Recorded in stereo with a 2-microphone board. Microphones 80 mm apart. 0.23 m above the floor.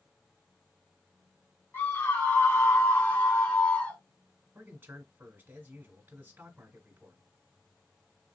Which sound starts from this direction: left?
A scream, at 1.7 s.